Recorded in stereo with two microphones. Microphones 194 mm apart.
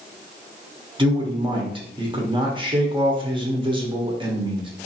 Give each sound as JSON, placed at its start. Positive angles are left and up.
{"t": 1.0, "sound": "a man speaking", "side_deg": -25, "distance_m": 0.8}